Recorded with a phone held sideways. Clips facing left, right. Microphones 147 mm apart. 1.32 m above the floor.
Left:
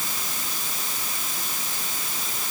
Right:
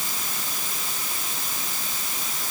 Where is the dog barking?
I don't hear a dog barking.